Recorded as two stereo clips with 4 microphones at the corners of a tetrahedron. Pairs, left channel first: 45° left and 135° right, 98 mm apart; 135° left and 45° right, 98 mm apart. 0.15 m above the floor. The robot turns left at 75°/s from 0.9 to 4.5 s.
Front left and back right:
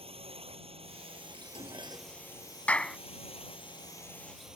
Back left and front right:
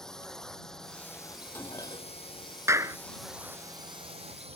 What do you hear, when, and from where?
0.0 s a drone: 140° right; by 4.6 s 50° right
1.3 s dishes clattering: 140° right; by 2.1 s 160° left
2.7 s a clap: 20° right; by 3.0 s 40° right